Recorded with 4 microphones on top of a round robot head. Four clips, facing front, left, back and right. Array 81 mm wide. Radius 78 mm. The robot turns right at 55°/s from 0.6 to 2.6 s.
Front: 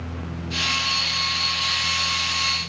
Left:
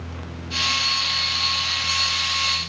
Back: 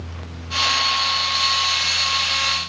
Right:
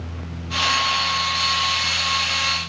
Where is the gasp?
I don't hear a gasp.